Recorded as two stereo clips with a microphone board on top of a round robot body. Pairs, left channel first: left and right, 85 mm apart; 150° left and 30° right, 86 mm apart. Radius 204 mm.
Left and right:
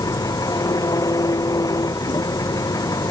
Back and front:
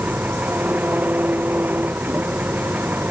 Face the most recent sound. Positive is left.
turn(degrees=40)